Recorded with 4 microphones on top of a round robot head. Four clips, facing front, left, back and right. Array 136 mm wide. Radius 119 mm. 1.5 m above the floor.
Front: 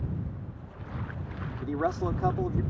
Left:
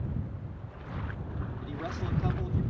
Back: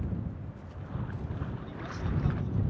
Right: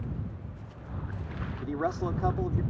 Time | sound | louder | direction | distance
1.6 | a man speaking | right 9 dB, front 11 dB | 35° right | ?